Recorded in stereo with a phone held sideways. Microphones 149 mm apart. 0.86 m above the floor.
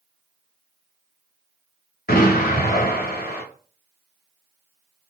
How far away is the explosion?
About 1.2 m.